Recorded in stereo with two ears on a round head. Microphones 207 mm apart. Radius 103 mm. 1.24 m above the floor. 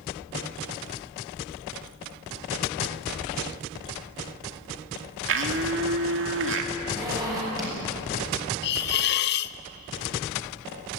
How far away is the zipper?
About 8 m.